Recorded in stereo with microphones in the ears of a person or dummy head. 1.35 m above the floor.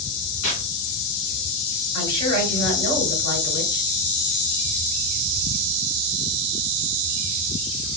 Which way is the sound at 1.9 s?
30° left (ahead or behind).